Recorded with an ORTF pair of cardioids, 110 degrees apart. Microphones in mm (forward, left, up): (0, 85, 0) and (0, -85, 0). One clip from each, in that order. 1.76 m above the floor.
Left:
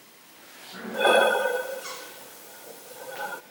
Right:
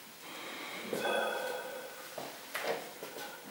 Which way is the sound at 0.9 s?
60° left.